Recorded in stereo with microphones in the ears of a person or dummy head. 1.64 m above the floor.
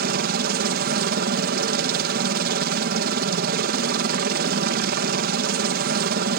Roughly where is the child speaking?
I don't hear a child speaking.